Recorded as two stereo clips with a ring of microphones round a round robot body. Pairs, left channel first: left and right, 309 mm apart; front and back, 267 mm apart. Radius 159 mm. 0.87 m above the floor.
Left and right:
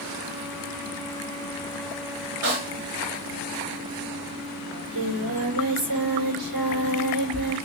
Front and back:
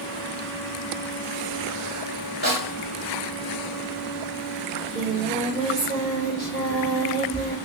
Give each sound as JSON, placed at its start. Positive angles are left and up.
{"t": 2.4, "sound": "a snare drum", "azimuth_deg": -120, "distance_m": 4.0}
{"t": 4.7, "sound": "singing", "azimuth_deg": -115, "distance_m": 3.5}